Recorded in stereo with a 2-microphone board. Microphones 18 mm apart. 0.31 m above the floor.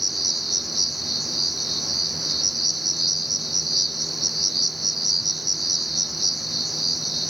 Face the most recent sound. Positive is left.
turn(degrees=-5)  # may be behind; listen again after turning